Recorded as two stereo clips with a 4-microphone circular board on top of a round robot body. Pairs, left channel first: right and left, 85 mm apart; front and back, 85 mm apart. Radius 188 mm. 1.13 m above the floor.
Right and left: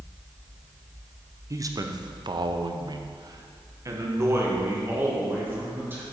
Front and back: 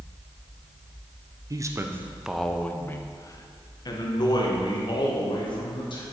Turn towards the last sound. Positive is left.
turn(degrees=25)